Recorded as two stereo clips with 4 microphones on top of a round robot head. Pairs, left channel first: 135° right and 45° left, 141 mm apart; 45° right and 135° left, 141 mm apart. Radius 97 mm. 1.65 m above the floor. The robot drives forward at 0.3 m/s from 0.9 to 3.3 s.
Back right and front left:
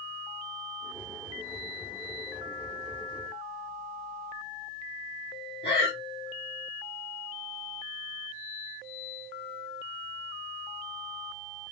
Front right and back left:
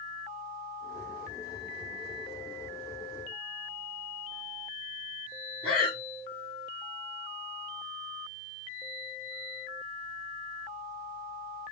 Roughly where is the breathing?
Behind right.